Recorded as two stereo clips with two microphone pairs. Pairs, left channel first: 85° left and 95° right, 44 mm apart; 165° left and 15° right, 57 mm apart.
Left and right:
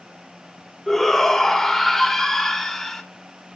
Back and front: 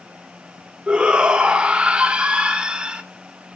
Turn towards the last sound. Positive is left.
turn(degrees=20)